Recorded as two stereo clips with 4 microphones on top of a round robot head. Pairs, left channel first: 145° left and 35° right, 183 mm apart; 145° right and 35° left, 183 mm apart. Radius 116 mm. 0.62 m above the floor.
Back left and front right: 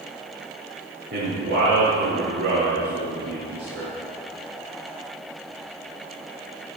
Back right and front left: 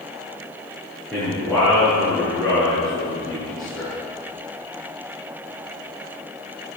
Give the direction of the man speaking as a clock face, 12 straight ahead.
2 o'clock.